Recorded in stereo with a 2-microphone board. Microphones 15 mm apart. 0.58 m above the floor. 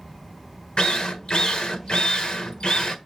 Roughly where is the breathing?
I don't hear breathing.